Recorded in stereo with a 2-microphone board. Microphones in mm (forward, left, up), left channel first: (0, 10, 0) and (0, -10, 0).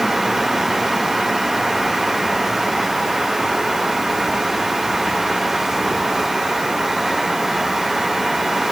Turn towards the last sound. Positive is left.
No sound to turn to.